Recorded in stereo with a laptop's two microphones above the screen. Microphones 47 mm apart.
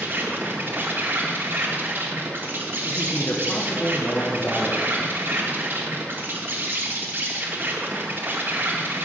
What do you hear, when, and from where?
0.0 s an insect: 40° right (ahead or behind), 1.2 m
2.8 s a man speaking: 40° left (ahead or behind), 1.0 m